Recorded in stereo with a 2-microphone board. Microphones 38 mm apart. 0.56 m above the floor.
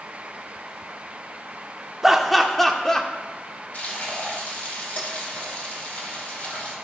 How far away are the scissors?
I don't hear scissors.